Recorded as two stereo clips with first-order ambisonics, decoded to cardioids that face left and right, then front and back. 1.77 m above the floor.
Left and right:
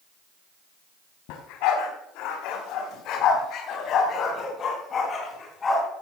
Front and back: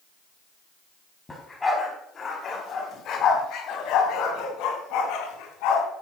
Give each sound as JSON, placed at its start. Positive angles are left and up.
{"t": 1.3, "sound": "a dog barking", "azimuth_deg": 80, "distance_m": 4.0}